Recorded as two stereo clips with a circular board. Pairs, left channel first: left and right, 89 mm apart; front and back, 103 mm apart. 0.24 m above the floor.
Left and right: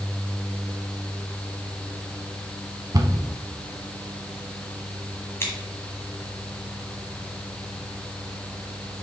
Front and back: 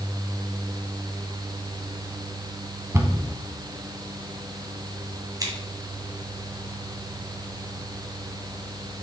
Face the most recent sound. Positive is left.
turn(degrees=145)